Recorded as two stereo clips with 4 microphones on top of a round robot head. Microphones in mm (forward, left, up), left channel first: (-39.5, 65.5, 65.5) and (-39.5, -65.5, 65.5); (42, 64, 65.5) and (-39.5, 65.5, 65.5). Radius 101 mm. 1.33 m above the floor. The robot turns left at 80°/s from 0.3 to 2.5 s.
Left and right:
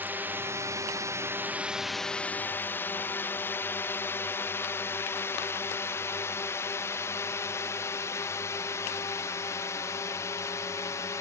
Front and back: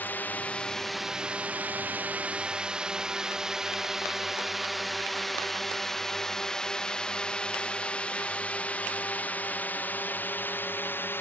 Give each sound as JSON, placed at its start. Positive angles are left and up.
{"t": 0.0, "sound": "a drone", "azimuth_deg": -35}